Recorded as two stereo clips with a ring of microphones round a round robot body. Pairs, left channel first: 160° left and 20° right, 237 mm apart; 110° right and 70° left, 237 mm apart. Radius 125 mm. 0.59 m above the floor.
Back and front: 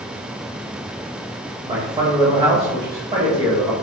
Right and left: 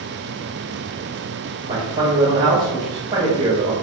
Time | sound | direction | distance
1.7 | a man speaking | 15° left | 1.2 m